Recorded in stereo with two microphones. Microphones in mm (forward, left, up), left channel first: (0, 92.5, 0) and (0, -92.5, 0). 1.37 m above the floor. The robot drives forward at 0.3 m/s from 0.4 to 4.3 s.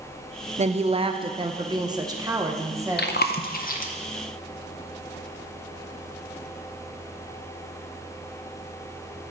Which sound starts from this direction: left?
Chewing, at 3.0 s.